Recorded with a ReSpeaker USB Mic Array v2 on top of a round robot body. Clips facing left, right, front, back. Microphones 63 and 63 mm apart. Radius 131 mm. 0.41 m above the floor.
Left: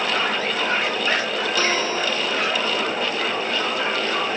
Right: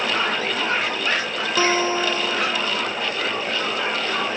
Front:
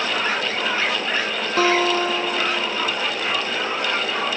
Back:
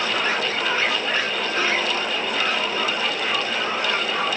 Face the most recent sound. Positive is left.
turn(degrees=-20)